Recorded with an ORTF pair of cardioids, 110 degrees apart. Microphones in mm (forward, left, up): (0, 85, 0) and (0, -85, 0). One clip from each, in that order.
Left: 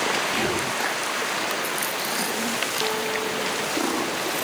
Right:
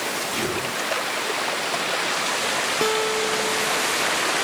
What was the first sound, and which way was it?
Whispering, 25° left.